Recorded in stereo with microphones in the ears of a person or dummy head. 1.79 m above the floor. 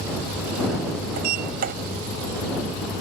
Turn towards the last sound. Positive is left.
turn(degrees=-55)  # may be behind; listen again after turning